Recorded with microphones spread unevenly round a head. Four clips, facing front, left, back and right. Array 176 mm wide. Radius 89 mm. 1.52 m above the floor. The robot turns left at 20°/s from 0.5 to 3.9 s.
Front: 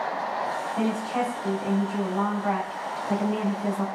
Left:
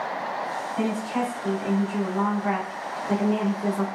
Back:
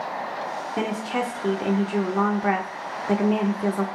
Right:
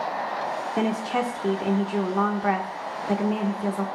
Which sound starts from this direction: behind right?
A woman speaking, at 0.8 s.